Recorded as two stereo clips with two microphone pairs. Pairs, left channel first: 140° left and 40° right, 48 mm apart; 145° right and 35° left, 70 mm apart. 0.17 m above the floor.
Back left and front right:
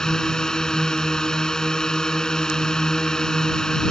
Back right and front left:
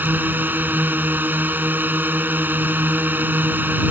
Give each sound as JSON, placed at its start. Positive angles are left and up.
{"t": 0.0, "sound": "a drone", "azimuth_deg": 75}